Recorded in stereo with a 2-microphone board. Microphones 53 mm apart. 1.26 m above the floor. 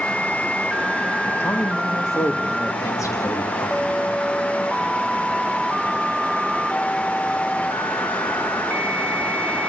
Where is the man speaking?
50° left (ahead or behind), 1.6 m; by 4.1 s 85° left, 2 m.